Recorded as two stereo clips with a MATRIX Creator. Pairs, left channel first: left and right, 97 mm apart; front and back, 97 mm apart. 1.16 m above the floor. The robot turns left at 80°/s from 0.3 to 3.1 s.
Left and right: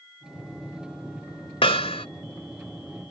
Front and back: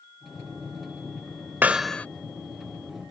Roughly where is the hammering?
Left.